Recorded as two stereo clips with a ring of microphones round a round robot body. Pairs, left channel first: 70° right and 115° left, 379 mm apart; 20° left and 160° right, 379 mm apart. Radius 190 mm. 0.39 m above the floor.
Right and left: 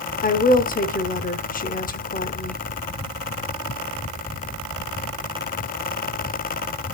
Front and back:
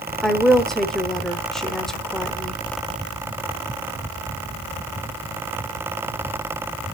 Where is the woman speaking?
65° right, 0.8 m.